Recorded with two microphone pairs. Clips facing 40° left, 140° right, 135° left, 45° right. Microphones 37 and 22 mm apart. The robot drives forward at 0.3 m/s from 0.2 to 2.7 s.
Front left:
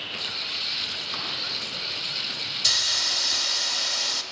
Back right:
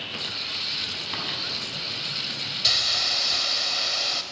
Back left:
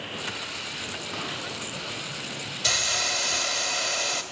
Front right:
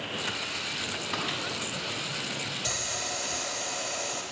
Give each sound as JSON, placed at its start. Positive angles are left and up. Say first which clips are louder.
{"t": 1.1, "sound": "a microwave", "louder": "back right 1 dB, front right 2 dB", "azimuth_deg": -95, "distance_m": 5.0}
{"t": 2.6, "sound": "a hiss", "louder": "back right 1 dB, back left 13 dB", "azimuth_deg": 150, "distance_m": 1.1}